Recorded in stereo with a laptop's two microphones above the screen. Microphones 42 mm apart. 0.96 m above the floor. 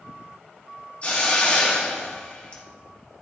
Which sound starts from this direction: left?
A hiss, at 1.0 s.